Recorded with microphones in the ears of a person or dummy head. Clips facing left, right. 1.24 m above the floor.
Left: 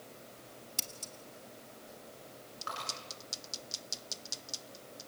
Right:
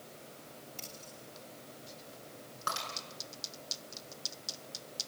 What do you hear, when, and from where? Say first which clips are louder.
0.8 s scissors: even; 60° left (ahead or behind), 2.5 m
2.7 s breaking glass: right 3 dB; 65° right (ahead or behind), 9.5 m